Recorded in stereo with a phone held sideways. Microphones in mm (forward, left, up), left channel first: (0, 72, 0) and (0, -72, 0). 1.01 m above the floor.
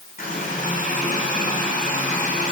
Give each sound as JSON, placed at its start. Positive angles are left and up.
{"t": 0.2, "sound": "a running tap", "side_deg": 80, "distance_m": 5.5}